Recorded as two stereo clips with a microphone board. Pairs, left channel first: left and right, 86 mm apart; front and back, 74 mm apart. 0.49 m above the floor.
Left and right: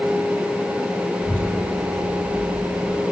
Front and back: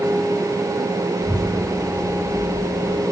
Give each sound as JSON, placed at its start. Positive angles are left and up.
{"t": 1.2, "sound": "a child speaking", "azimuth_deg": 165, "distance_m": 7.5}